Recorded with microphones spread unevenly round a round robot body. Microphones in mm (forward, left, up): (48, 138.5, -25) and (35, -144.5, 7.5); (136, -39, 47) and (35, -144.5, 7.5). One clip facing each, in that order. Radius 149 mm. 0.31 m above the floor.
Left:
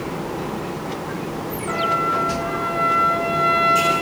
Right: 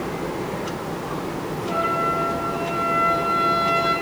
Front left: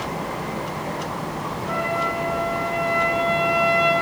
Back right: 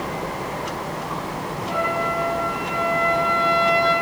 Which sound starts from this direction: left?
A trumpet, at 1.7 s.